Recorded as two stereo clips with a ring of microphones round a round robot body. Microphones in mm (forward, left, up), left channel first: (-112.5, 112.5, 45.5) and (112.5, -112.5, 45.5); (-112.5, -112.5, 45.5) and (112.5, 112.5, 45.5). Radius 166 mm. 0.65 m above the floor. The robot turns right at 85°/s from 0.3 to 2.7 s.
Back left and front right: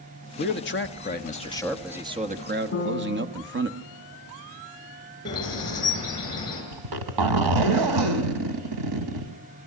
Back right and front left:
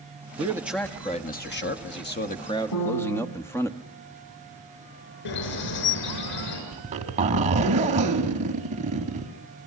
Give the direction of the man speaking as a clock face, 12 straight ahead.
9 o'clock.